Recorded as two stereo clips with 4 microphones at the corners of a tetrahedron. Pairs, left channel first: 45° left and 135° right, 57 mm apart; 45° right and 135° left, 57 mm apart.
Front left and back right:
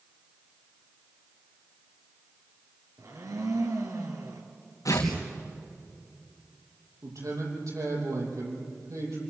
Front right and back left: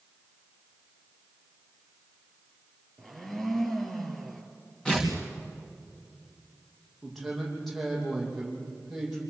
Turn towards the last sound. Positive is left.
turn(degrees=-135)